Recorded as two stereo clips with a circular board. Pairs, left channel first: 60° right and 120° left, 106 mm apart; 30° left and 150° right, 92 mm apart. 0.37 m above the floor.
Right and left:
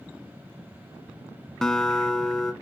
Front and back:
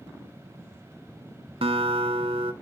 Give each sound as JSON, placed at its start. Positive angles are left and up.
{"t": 1.6, "sound": "a guitar", "azimuth_deg": -145, "distance_m": 0.9}